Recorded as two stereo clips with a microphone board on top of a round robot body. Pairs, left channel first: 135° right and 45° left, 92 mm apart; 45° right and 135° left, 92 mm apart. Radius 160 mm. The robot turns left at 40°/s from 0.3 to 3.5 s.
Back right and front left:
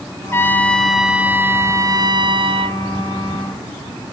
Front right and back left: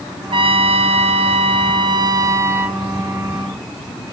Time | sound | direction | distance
0.3 | a trumpet | 160° left | 0.8 m